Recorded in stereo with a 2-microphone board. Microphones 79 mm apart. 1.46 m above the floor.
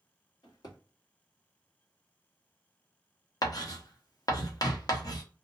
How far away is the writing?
About 0.7 m.